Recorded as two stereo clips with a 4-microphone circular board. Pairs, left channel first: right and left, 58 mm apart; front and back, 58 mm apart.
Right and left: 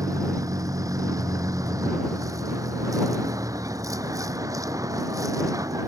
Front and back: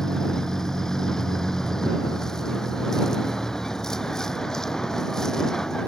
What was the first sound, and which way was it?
A vehicle, 80° left.